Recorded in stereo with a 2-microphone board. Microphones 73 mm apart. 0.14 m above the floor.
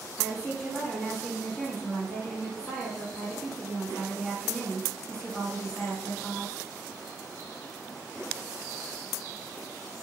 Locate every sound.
0.2 s a woman speaking: 15° left (ahead or behind), 1.1 m